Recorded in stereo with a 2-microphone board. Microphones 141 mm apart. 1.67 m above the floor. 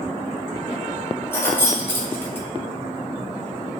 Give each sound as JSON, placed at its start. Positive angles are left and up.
{"t": 1.3, "sound": "keys jangling", "side_deg": 15, "distance_m": 0.6}